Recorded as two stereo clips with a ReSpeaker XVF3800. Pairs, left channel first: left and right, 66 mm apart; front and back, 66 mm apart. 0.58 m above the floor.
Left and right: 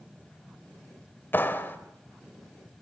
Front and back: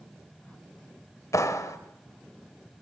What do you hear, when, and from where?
1.3 s a clap: 35° left, 2.5 m